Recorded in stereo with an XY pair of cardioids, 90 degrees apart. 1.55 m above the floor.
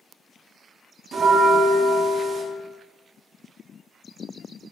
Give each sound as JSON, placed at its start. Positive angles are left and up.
{"t": 1.1, "sound": "a bell", "azimuth_deg": -55, "distance_m": 0.5}